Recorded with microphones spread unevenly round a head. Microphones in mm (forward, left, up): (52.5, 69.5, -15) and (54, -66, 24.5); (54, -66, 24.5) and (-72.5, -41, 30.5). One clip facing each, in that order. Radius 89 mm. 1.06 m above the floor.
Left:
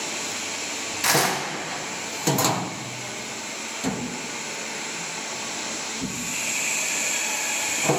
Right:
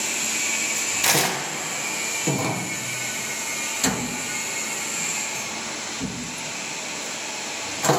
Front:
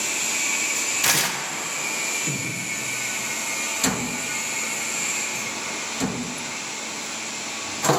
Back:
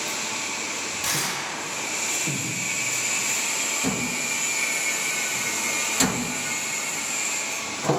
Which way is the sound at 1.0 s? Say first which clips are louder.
Left 1 dB, front 5 dB; 20° right.